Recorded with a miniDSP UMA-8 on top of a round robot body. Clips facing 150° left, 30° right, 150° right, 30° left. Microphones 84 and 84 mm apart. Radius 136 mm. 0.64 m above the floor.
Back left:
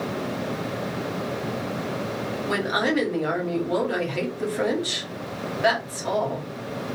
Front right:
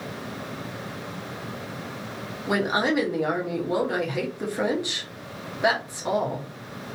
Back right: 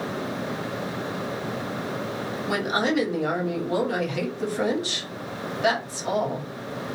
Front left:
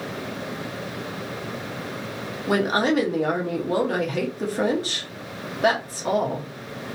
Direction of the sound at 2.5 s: 30° left.